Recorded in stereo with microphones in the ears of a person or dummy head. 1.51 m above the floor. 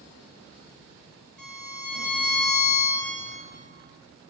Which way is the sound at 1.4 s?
5° left (ahead or behind).